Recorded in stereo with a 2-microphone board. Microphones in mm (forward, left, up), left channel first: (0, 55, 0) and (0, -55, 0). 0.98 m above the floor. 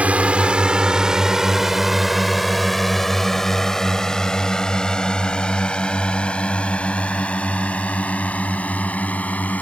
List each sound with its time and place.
0.0 s a drone: 15° right (ahead or behind); by 9.6 s 15° left (ahead or behind)